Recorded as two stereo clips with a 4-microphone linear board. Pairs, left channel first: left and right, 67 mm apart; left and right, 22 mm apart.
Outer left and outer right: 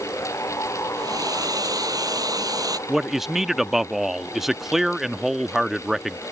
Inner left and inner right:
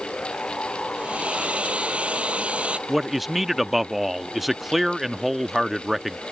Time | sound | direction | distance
0.9 | a hair dryer | 65° right (ahead or behind) | ?
2.9 | a man speaking | 5° right (ahead or behind) | ?